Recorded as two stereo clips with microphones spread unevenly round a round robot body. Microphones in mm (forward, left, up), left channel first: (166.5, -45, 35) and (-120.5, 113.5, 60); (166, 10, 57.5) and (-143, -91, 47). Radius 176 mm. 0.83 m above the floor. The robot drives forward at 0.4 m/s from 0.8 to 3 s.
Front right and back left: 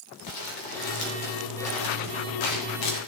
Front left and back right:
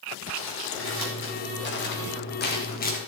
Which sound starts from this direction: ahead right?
Crumpling, at 0.3 s.